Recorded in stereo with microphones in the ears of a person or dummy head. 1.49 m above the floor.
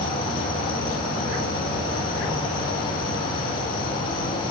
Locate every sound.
0.0 s an insect: 30° left (ahead or behind), 3 m